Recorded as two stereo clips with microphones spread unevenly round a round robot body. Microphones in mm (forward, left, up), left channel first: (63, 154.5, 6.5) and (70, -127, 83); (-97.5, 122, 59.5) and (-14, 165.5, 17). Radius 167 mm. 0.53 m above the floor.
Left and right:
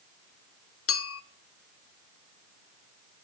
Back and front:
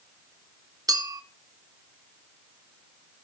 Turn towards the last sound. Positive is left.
turn(degrees=65)